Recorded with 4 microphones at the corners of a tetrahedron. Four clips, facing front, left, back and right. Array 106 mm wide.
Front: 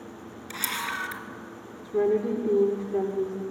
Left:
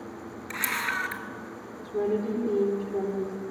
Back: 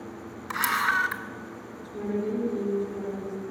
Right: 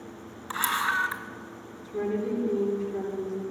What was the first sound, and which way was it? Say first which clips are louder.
A camera shutter: right 4 dB, back 8 dB; 150° right.